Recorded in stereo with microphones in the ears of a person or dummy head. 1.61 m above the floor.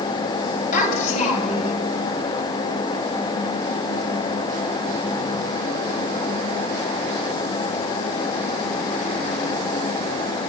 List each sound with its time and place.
0.7 s a child speaking: 50° left (ahead or behind), 6.5 m; by 1.8 s 45° left (ahead or behind), 6 m